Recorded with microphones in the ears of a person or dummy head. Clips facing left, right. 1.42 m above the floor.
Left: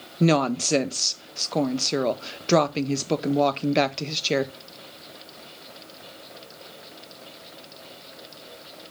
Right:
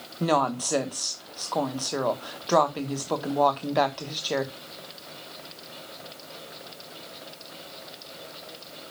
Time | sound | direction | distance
0.2 | a woman speaking | 30° left (ahead or behind) | 1.1 m